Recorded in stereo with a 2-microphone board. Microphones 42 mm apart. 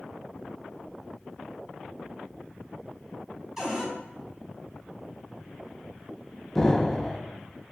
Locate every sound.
3.6 s a cupboard door: 5° right (ahead or behind), 1.3 m
6.5 s an explosion: 10° left (ahead or behind), 0.6 m